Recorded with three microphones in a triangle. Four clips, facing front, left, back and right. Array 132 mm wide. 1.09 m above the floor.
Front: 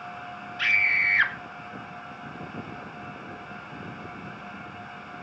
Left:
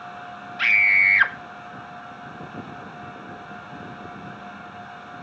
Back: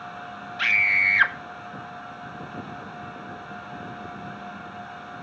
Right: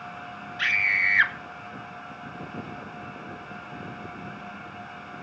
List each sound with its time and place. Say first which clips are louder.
0.6 s a scream: left 5 dB, back 2 dB; 125° left, 1.8 m